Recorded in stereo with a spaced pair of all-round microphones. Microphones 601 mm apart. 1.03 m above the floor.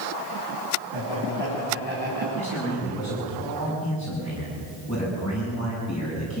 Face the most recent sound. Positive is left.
turn(degrees=10)  # may be behind; listen again after turning